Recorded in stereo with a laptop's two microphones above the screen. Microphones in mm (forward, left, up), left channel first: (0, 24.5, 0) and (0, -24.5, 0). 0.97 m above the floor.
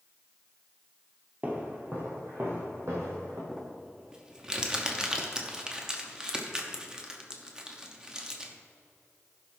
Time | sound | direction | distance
1.4 | footsteps | 30° right (ahead or behind) | 1.4 m
3.5 | crumpling | 15° right (ahead or behind) | 0.9 m